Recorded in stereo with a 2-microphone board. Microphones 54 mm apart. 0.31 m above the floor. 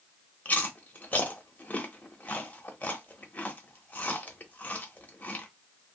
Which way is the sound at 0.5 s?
30° left (ahead or behind).